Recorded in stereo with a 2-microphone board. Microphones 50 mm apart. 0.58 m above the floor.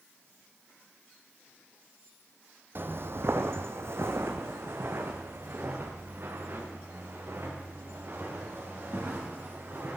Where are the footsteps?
50° right (ahead or behind), 1.0 m; by 10.0 s 45° right (ahead or behind), 5 m.